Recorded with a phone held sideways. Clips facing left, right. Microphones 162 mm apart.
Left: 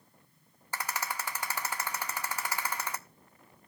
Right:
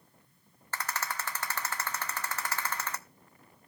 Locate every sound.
0.7 s a rattle: 10° left (ahead or behind), 0.8 m